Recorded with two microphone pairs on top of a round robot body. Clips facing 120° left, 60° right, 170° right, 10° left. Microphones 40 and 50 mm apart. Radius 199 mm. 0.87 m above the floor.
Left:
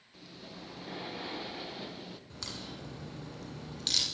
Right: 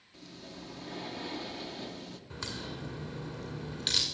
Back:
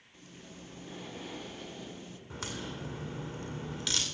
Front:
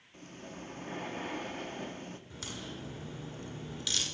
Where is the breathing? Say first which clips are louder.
Right 1 dB, front 5 dB; 40° left, 1.2 m.